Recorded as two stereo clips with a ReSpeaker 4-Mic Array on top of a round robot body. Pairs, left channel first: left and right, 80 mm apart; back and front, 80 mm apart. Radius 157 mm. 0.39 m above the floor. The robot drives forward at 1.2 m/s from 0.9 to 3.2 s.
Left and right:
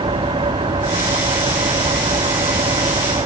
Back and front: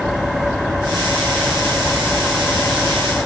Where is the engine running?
90° right; by 3.2 s 95° right.